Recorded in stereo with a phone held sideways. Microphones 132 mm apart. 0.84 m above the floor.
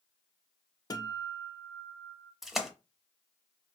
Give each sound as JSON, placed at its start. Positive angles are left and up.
{"t": 0.9, "sound": "a guitar", "side_deg": 30, "distance_m": 0.5}
{"t": 2.4, "sound": "a splash", "side_deg": 0, "distance_m": 0.6}